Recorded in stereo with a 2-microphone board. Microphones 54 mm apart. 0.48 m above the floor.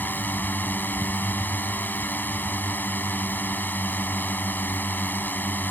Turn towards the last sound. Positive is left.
turn(degrees=35)  # may be behind; listen again after turning